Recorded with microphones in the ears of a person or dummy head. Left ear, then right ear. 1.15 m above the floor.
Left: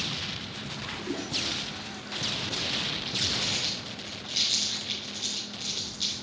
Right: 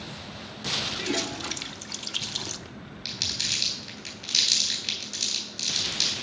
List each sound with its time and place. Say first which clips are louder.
1.0 s a toilet flushing: right 2 dB; 35° right (ahead or behind), 0.5 m
3.0 s crumpling: right 4 dB; 75° right (ahead or behind), 3.5 m